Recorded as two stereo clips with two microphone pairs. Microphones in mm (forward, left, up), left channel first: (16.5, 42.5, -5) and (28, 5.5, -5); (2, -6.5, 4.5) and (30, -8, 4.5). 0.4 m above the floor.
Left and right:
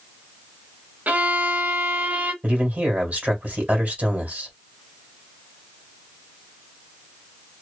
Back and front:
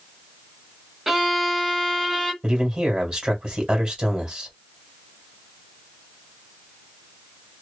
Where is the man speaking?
45° right, 1.5 m.